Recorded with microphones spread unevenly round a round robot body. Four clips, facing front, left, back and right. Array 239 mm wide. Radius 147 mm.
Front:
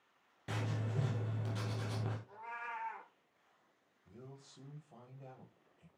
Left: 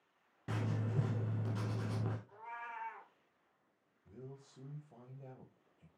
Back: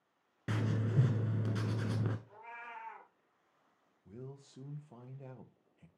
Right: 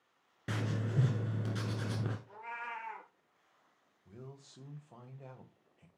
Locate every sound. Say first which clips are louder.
0.5 s writing: right 2 dB, back 5 dB; 165° right, 1.0 m
2.3 s a cat meowing: right 4 dB, front 4 dB; 75° right, 3.5 m
4.0 s a man speaking: right 1 dB, back 5 dB; 165° right, 1.1 m